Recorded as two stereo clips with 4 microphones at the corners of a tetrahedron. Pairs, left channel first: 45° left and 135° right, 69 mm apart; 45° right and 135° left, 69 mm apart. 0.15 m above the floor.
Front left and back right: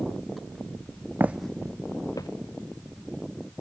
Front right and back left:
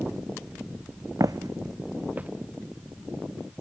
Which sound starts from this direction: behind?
Footsteps, at 1.2 s.